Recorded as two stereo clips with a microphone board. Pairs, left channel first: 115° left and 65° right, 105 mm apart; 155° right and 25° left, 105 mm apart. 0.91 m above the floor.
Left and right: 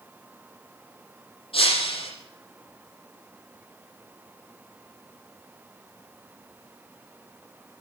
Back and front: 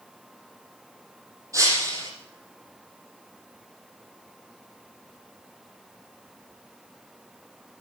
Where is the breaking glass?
85° left, 6.5 m.